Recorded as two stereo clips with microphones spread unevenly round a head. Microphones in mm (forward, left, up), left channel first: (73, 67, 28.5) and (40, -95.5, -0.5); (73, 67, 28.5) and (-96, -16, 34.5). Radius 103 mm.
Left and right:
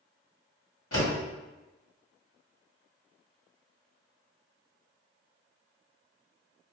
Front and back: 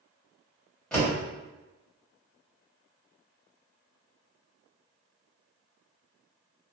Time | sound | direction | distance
0.9 | a door slam | 115° left | 1.8 m